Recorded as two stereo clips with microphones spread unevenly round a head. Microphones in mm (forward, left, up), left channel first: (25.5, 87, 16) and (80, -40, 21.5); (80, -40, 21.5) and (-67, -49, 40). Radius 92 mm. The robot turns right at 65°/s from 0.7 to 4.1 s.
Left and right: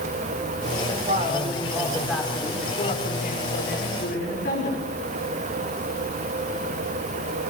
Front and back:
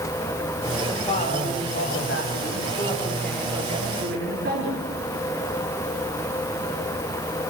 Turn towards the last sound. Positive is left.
turn(degrees=150)